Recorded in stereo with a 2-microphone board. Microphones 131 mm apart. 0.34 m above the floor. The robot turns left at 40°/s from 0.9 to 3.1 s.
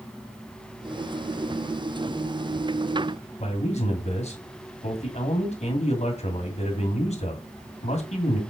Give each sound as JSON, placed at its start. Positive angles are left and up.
{"t": 3.4, "sound": "a man speaking", "side_deg": 55, "distance_m": 2.0}